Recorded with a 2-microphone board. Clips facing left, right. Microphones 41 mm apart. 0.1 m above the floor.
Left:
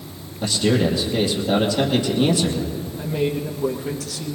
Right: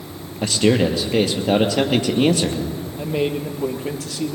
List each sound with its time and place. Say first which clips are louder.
0.4 s a man speaking: right 2 dB; 55° right (ahead or behind), 2 m
3.0 s a man speaking: right 1 dB; 35° right (ahead or behind), 2.0 m